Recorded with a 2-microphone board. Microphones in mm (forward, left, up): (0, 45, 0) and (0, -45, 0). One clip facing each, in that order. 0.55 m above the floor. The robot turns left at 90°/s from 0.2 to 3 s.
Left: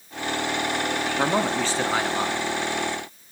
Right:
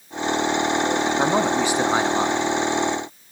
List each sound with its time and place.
1.2 s a man speaking: 5° right (ahead or behind), 1.0 m; by 2.5 s 15° right (ahead or behind), 1.0 m